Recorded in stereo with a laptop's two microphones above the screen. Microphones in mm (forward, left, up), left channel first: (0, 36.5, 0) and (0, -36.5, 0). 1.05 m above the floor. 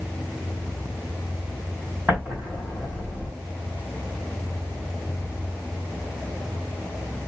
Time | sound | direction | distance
2.1 | an explosion | 25° right (ahead or behind) | 2.0 m